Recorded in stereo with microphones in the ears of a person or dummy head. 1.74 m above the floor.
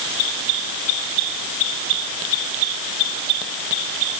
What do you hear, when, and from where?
Only background noise.